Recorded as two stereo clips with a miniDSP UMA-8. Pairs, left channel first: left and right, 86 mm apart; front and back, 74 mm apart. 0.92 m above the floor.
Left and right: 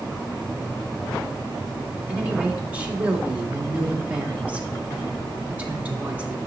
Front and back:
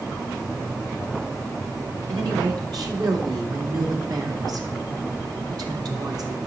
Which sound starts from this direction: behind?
A woman speaking, at 2.1 s.